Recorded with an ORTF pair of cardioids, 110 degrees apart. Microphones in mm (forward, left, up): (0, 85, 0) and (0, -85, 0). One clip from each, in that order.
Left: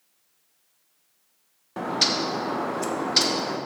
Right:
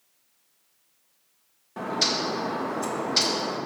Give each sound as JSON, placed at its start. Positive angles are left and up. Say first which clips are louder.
{"t": 1.8, "sound": "a bird", "louder": "left 2 dB", "azimuth_deg": 25, "distance_m": 1.1}